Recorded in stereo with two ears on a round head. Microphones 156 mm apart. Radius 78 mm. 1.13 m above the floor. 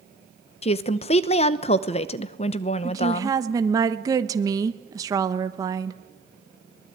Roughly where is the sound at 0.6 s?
Left.